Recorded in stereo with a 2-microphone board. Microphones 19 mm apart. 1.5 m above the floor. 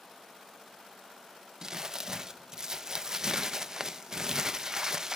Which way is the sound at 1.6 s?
30° right (ahead or behind).